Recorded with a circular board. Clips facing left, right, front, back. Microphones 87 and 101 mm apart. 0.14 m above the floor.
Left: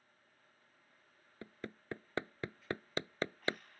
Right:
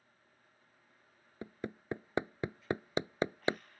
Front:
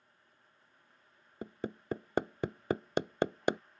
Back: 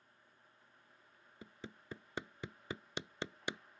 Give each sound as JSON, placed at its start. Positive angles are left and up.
{"t": 1.4, "sound": "hammering", "azimuth_deg": -20}